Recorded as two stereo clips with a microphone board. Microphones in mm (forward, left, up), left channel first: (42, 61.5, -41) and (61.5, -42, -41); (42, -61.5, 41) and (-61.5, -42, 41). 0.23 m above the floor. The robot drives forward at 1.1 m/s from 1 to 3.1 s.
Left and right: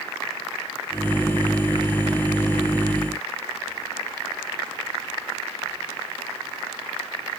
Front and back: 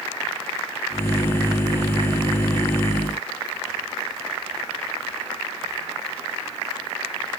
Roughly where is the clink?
I don't hear a clink.